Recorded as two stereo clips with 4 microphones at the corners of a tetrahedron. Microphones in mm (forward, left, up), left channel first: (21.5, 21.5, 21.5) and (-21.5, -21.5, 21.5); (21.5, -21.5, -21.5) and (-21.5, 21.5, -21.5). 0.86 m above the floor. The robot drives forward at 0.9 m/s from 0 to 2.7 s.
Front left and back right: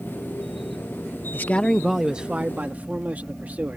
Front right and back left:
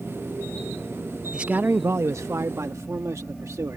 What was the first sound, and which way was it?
A man speaking, 70° left.